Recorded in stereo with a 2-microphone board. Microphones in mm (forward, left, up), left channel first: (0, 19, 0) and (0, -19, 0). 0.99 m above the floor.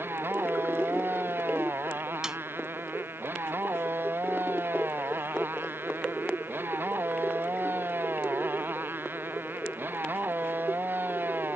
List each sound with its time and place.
0.0 s a motorcycle: 70° right (ahead or behind); by 11.6 s 60° right (ahead or behind)
2.2 s a snare drum: 15° right (ahead or behind)